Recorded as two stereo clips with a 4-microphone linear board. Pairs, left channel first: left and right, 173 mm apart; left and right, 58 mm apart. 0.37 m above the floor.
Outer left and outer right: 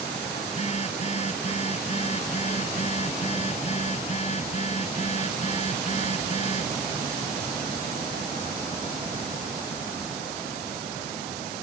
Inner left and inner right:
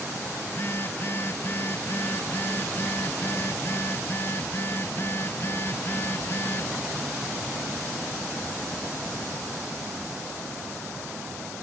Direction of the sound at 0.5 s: 40° left (ahead or behind).